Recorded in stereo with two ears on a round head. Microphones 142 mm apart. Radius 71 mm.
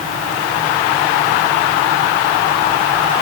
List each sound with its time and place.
Only background noise.